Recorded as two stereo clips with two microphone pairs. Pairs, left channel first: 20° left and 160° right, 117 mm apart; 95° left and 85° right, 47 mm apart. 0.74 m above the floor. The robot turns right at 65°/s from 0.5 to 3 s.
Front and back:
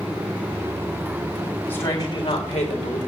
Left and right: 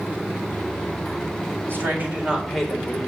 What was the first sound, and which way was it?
A woman speaking, 55° right.